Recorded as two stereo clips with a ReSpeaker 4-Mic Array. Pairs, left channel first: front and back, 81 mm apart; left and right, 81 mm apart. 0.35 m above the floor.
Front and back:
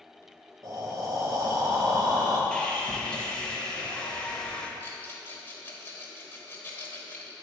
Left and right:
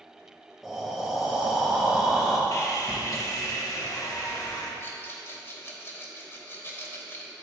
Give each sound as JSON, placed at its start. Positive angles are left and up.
{"t": 0.6, "sound": "breathing", "azimuth_deg": -175, "distance_m": 1.0}
{"t": 2.5, "sound": "sawing", "azimuth_deg": 75, "distance_m": 0.8}
{"t": 4.8, "sound": "a rattle", "azimuth_deg": 50, "distance_m": 1.0}